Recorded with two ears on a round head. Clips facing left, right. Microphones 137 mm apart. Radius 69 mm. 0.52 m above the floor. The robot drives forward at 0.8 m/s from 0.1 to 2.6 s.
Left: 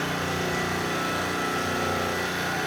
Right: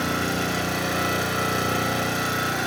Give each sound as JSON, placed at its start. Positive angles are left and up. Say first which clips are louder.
{"t": 0.0, "sound": "an engine running", "louder": "right 3 dB", "side_deg": -60, "distance_m": 2.5}